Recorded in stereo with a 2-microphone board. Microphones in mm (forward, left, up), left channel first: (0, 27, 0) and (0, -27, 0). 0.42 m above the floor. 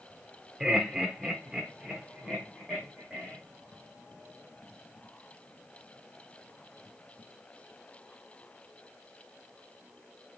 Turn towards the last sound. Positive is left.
turn(degrees=-10)  # may be behind; listen again after turning